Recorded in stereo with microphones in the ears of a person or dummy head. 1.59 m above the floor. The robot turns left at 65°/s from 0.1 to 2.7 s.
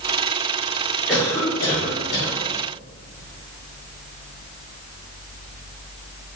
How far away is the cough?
About 1.7 m.